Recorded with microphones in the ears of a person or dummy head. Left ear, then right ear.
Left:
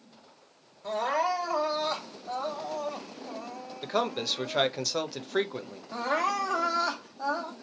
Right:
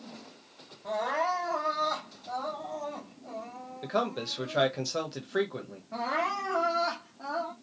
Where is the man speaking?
30° left (ahead or behind), 1.0 m.